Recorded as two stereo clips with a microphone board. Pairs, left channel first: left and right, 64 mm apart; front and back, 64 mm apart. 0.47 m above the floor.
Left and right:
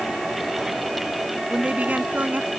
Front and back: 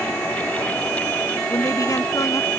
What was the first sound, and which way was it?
A woman speaking, 25° right.